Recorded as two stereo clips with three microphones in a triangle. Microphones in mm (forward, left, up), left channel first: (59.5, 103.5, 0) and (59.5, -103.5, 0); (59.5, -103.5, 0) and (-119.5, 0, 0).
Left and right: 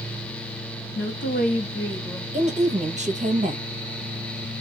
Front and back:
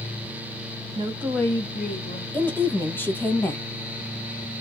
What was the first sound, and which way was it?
A woman speaking, 90° left.